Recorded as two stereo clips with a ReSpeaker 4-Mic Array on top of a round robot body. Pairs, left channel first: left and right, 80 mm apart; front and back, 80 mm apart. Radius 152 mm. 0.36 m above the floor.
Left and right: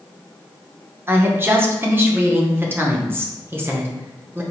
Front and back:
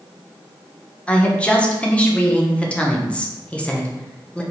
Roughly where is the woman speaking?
Ahead right.